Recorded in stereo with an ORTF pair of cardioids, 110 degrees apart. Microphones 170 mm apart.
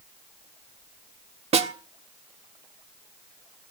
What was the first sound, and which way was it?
A snare drum, 40° right.